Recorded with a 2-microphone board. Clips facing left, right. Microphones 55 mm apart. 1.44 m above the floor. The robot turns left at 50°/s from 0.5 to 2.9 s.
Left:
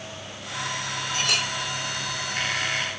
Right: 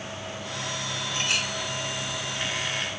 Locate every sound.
1.1 s a clink: 85° left, 4.5 m; by 1.5 s 75° left (ahead or behind), 4.5 m